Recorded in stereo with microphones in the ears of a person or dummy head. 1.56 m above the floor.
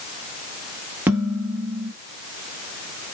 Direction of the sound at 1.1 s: 20° right (ahead or behind).